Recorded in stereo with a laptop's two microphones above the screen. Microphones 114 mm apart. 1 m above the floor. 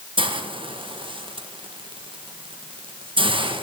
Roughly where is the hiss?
Right.